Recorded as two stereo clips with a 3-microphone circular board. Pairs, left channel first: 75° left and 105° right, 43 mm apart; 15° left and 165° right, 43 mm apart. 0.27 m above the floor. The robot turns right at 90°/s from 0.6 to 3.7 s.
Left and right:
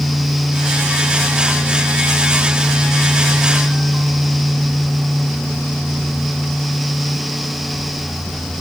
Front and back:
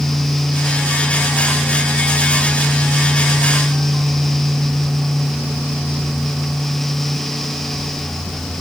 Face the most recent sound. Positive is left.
No sound to turn to.